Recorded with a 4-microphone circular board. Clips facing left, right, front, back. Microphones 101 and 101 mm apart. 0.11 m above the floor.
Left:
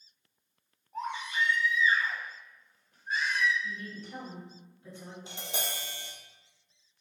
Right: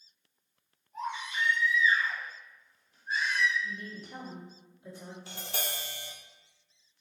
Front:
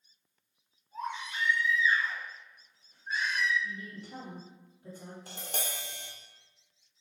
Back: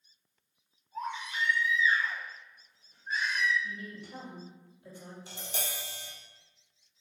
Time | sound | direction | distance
0.9 | a baby crying | 90° left | 2.0 m
3.6 | a woman speaking | 20° right | 1.8 m
5.3 | tapping | 25° left | 0.9 m